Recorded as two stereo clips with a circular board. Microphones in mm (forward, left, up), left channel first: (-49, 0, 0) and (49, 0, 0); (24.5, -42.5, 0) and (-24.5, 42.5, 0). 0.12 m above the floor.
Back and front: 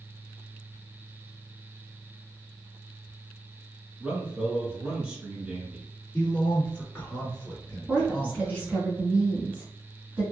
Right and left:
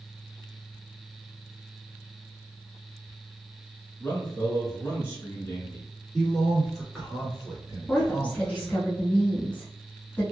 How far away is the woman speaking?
About 1.0 m.